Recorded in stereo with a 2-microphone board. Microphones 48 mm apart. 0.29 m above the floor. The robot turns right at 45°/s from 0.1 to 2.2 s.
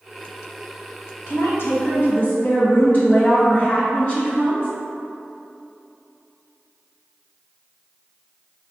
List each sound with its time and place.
1.3 s a woman speaking: 85° left, 1.6 m; by 4.7 s 130° left, 1.6 m